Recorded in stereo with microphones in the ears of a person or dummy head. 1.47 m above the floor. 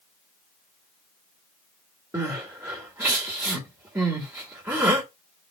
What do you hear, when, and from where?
2.1 s crying: 10° right (ahead or behind), 1.5 m